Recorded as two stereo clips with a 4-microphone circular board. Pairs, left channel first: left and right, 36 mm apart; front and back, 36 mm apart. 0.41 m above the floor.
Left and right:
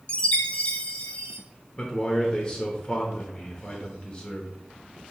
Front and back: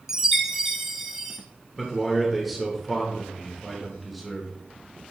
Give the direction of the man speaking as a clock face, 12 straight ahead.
9 o'clock.